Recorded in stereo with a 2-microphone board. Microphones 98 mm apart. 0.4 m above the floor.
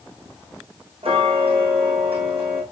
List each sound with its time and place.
1.0 s ticking: 70° right (ahead or behind), 4.5 m